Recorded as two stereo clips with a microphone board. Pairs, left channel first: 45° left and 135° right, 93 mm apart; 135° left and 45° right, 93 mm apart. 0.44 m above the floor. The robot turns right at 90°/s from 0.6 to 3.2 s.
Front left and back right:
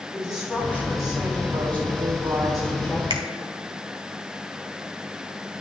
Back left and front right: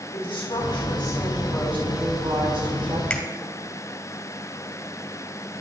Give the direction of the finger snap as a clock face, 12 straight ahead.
5 o'clock.